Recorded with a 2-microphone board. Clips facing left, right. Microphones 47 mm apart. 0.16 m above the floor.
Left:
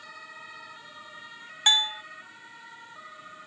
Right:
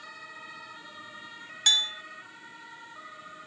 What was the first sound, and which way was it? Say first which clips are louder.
A bell: left 2 dB; 25° left (ahead or behind).